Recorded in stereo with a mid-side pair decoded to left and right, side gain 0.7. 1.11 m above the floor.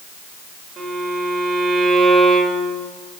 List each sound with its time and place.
0.8 s a violin: 35° right, 4 m